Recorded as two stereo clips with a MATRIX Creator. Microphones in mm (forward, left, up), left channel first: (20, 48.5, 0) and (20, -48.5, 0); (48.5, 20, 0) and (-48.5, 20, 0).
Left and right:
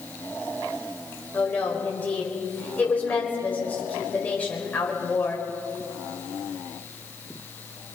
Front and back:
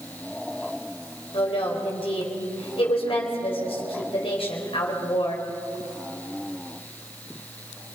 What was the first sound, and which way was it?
A woman speaking, 15° left.